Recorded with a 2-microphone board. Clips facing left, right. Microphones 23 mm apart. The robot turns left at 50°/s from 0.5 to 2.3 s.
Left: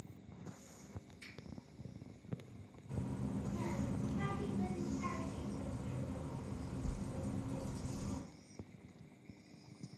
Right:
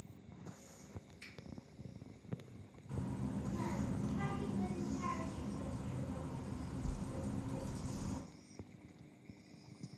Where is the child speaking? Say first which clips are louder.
Even; 20° right (ahead or behind), 1.9 m.